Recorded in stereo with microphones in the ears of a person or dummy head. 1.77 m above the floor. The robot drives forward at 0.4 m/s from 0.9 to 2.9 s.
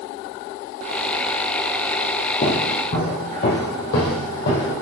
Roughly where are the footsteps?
Left.